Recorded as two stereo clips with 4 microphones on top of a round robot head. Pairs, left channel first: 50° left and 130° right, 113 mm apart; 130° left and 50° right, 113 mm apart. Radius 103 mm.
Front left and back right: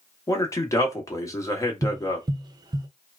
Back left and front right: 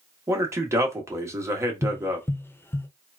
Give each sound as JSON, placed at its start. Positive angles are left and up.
{"t": 0.3, "sound": "a man speaking", "azimuth_deg": 5, "distance_m": 1.1}
{"t": 1.8, "sound": "tapping", "azimuth_deg": -165, "distance_m": 0.6}